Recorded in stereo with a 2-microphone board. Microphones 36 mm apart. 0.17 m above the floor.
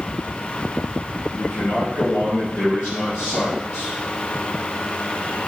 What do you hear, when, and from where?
1.4 s a man speaking: 75° left (ahead or behind), 3.5 m; by 3.9 s 60° left (ahead or behind), 5 m